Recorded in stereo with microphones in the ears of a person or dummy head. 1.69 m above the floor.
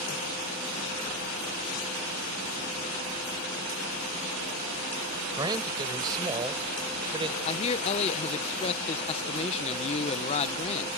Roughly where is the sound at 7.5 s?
Left.